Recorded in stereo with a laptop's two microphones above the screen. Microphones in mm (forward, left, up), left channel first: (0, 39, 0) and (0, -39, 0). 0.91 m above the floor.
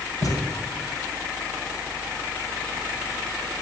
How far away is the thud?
About 2.5 m.